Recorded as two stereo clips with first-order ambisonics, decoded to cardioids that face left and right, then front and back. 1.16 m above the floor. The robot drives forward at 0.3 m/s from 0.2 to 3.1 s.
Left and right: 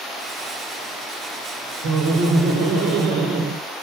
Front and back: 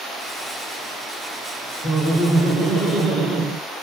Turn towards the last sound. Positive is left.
turn(degrees=-115)